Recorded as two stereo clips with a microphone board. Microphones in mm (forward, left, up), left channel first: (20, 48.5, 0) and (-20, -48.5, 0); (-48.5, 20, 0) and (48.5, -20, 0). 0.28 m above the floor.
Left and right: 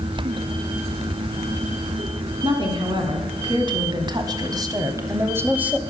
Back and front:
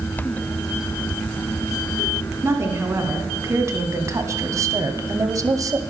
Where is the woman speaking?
90° right, 2.5 m; by 5.8 s 45° right, 1.0 m.